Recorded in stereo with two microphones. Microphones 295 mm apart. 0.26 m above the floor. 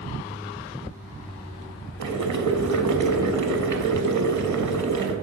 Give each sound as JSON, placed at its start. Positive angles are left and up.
{"t": 2.0, "sound": "boiling", "side_deg": -70, "distance_m": 0.6}